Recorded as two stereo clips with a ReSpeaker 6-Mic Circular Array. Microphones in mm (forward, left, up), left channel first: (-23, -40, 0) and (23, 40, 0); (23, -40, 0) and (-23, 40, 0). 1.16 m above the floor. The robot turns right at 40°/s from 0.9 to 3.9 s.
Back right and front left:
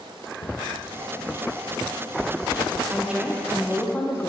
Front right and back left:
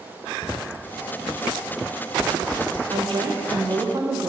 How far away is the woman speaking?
About 0.7 m.